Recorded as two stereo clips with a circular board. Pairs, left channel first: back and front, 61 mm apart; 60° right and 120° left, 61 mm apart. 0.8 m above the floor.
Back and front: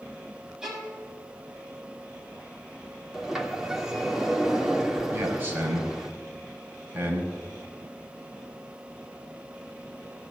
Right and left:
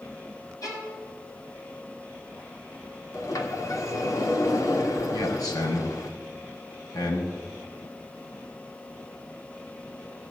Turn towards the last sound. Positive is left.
turn(degrees=-60)